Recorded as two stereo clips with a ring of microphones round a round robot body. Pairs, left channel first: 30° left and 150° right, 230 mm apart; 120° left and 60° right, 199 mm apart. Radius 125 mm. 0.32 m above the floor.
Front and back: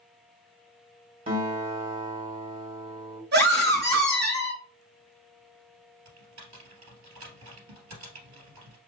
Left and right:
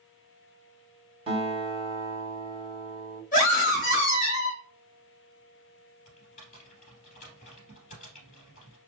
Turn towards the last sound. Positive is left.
turn(degrees=180)